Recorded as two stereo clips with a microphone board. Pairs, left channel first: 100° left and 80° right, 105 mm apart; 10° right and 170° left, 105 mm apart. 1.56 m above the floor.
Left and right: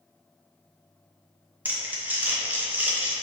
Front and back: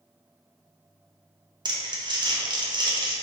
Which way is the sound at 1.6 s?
150° right.